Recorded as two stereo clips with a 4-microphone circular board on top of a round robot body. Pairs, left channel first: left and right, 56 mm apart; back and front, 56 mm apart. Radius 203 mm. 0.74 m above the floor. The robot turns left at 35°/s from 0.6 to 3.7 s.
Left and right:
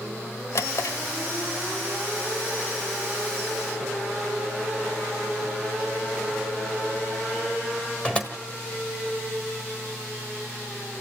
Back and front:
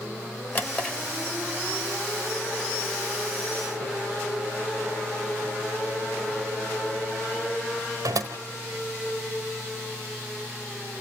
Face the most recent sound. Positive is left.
turn(degrees=15)